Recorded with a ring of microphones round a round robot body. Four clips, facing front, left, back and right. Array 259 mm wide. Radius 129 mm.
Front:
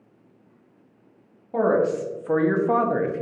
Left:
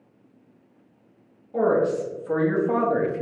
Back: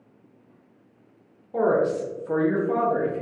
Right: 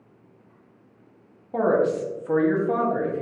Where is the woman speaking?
40° right, 1.3 m; by 3.2 s 50° left, 0.8 m.